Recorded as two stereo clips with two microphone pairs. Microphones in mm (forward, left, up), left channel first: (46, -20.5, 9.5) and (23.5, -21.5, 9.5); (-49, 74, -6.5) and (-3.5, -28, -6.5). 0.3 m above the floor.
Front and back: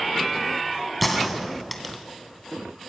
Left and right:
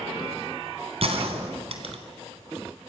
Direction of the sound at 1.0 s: 80° right.